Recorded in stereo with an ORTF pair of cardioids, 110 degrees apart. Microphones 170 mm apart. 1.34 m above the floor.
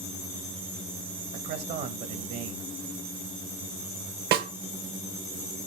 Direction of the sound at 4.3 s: 70° right.